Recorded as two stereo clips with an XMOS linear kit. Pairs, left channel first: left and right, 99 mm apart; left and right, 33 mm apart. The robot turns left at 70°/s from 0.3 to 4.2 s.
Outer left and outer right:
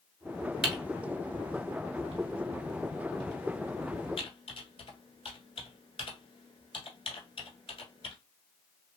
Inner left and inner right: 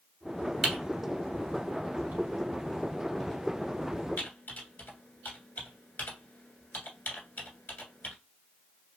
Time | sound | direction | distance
0.6 | typing on a keyboard | centre (ahead or behind) | 1.2 m